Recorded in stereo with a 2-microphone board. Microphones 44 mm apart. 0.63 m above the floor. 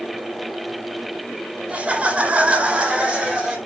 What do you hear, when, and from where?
1.7 s laughter: 30° right (ahead or behind), 1.3 m; by 3.6 s 25° right (ahead or behind), 2.5 m